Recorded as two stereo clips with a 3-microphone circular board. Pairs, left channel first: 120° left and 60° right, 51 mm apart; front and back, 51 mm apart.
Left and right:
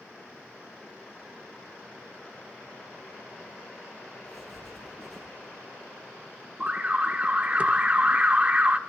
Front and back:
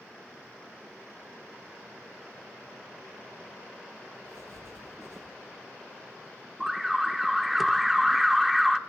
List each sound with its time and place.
4.2 s writing: 155° right, 8 m
6.6 s an alarm: 100° right, 1.0 m